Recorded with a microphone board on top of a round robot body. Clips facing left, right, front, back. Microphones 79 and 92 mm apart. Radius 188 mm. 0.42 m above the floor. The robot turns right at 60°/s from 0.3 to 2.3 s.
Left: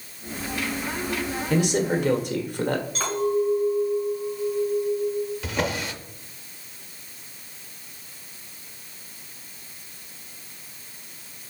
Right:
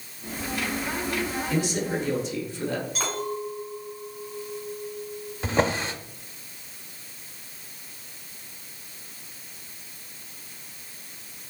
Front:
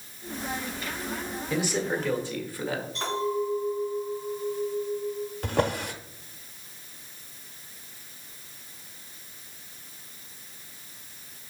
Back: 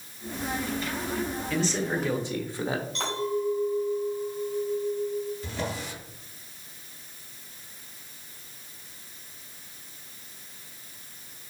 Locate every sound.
1.5 s a man speaking: 65° left, 1.6 m; by 2.9 s 115° left, 1.6 m
3.0 s a clink: 175° right, 4 m
5.4 s a drawer: 30° right, 0.8 m